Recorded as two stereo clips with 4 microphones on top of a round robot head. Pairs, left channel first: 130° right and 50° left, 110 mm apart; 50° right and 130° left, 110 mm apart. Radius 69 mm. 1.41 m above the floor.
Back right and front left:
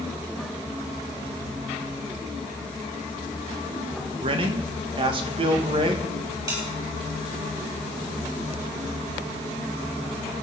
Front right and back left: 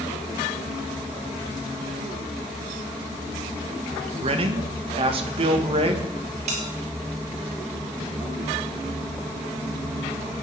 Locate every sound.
4.2 s a man speaking: 95° left, 1.8 m
6.5 s a bell: 105° left, 6 m